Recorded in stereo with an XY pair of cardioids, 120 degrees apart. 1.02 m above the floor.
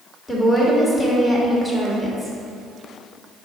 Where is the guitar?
I don't hear a guitar.